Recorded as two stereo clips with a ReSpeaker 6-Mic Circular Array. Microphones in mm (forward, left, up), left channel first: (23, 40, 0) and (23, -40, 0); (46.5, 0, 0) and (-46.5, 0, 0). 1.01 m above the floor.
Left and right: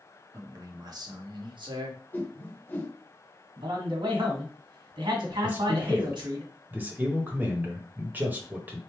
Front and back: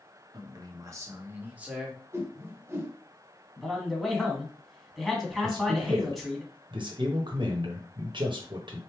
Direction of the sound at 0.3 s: 140° right.